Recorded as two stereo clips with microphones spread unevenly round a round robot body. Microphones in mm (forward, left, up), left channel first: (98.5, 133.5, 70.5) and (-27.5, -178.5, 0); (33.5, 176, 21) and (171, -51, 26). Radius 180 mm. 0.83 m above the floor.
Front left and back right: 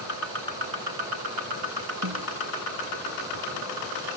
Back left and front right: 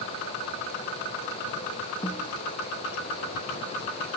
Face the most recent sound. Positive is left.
turn(degrees=-160)